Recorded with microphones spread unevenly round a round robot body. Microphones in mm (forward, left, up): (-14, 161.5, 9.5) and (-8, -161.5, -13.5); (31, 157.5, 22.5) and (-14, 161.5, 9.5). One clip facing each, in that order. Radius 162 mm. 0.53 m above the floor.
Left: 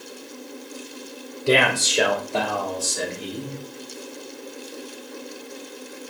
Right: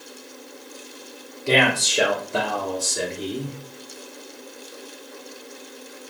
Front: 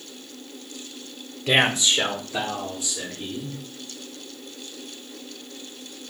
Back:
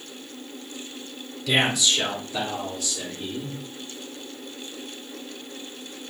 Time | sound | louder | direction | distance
1.5 | a man speaking | left 1 dB, front 2 dB | 30° left | 0.8 m